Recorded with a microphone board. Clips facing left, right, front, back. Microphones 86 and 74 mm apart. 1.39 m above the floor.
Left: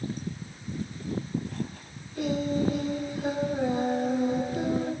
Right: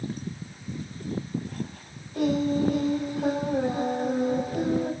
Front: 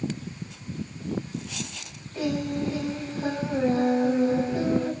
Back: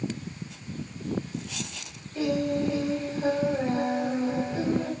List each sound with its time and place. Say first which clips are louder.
2.1 s singing: right 3 dB, back 1 dB; 75° right, 6 m